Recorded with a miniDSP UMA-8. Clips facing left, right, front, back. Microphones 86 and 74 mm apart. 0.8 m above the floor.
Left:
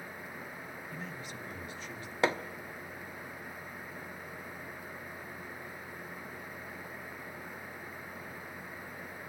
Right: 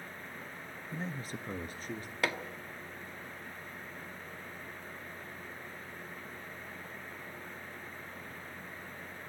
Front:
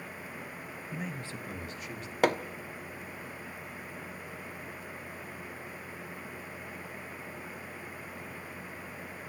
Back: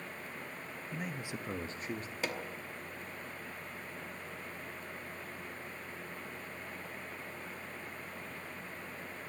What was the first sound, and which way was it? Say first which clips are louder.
A man speaking: right 6 dB, front 1 dB; 75° right.